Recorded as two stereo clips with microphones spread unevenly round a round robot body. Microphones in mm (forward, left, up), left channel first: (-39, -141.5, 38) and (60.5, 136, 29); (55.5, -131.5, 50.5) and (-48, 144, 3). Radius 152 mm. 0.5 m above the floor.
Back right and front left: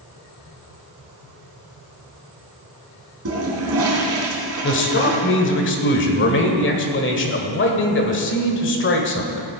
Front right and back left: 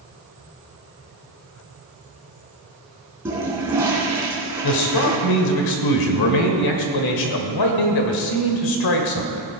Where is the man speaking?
60° right, 1.8 m.